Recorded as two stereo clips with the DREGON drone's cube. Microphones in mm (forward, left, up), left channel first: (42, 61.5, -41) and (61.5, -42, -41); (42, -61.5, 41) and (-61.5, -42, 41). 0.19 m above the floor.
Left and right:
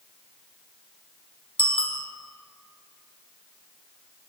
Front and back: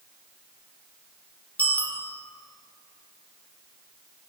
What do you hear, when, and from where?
1.6 s a bicycle bell: 65° left, 4 m